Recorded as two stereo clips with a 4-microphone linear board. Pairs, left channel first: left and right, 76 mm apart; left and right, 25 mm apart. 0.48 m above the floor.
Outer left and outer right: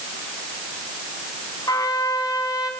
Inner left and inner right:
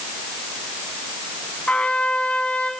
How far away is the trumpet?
About 2.5 m.